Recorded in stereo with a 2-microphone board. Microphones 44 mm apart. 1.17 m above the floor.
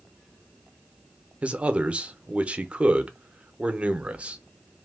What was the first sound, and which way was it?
A man speaking, 25° right (ahead or behind).